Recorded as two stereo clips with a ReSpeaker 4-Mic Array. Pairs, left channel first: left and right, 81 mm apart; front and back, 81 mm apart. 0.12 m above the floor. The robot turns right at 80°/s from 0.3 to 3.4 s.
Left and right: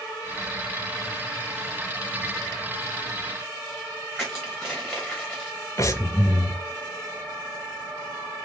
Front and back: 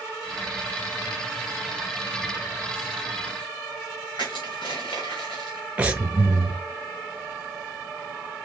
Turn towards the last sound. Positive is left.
turn(degrees=115)